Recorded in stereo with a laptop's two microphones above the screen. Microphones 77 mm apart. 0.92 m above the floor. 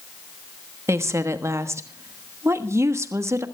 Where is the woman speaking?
40° right (ahead or behind), 1.3 m.